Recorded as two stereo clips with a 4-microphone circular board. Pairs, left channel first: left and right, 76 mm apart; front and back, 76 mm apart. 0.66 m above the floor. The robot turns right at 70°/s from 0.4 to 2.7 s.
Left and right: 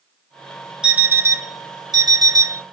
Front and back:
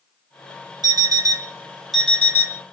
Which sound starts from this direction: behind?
An alarm clock, at 0.8 s.